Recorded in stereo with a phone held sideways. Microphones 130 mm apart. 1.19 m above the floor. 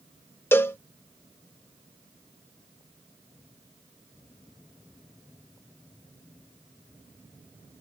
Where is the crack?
No crack in this recording.